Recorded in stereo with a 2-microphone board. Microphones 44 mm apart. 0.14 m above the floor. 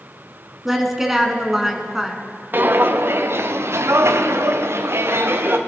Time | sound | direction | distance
0.7 | a woman speaking | 10° right (ahead or behind) | 1.2 m
2.5 | footsteps | 50° right (ahead or behind) | 1.2 m